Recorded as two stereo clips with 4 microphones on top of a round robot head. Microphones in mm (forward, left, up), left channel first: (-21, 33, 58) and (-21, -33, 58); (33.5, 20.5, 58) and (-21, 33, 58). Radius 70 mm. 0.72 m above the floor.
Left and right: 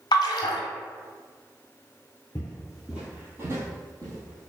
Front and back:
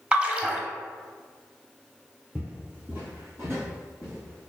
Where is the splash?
95° left, 0.6 m.